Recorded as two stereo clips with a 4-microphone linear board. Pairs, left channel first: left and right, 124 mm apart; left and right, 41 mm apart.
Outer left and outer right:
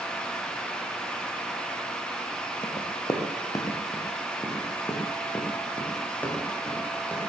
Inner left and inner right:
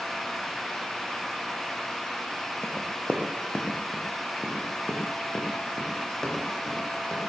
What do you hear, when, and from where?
2.6 s running footsteps: 40° left (ahead or behind), 2.5 m; by 7.2 s 10° left (ahead or behind), 6 m